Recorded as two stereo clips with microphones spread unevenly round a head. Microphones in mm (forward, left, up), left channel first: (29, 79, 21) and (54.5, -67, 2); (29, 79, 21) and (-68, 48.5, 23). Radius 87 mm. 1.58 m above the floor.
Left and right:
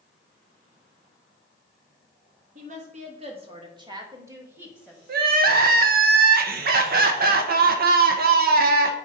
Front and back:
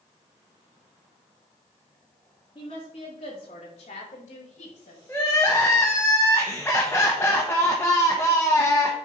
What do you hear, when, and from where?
2.5 s a woman speaking: 45° right, 2.5 m; by 5.0 s 5° left, 2.5 m
5.1 s crying: 60° right, 1.0 m